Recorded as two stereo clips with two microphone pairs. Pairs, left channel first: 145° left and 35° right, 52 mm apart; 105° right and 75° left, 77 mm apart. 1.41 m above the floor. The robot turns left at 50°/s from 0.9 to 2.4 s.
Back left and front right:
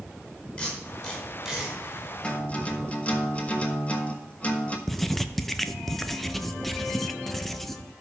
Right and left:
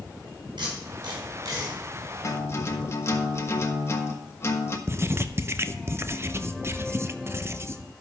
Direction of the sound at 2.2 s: 145° right.